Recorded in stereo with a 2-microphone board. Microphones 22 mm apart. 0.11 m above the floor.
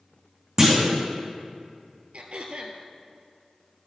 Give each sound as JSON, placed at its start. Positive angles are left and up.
{"t": 0.6, "sound": "a clunk", "side_deg": -25, "distance_m": 2.0}
{"t": 2.1, "sound": "throat clearing", "side_deg": -60, "distance_m": 1.1}